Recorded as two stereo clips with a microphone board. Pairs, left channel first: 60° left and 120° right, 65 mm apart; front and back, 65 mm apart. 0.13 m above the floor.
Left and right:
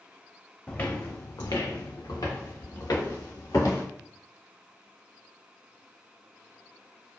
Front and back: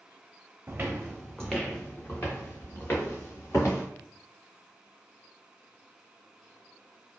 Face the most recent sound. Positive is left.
turn(degrees=45)